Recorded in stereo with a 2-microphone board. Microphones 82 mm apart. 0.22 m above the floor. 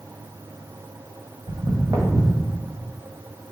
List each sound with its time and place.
1.5 s footsteps: 65° right (ahead or behind), 0.7 m; by 2.5 s 30° right (ahead or behind), 1.4 m